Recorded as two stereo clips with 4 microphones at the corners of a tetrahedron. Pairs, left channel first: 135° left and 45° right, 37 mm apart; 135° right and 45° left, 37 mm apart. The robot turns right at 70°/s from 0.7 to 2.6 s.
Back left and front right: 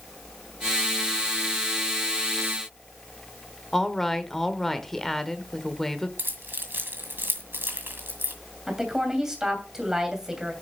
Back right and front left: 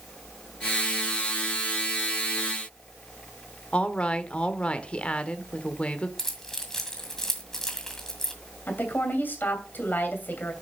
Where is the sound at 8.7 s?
120° right, 2.5 m.